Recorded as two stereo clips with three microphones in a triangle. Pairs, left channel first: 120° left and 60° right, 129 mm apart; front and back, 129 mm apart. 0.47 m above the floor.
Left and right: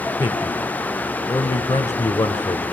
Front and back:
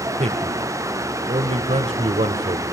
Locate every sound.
0.2 s a man speaking: straight behind, 1.4 m